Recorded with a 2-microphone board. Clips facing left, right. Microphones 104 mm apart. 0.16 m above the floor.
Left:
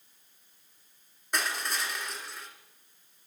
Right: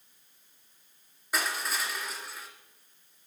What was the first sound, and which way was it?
Crushing, centre (ahead or behind).